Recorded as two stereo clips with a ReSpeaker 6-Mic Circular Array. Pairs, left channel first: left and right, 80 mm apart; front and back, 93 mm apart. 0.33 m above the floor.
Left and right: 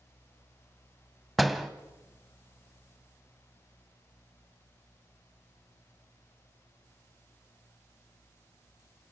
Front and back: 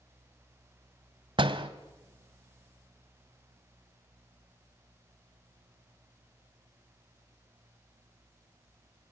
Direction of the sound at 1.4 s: Straight behind.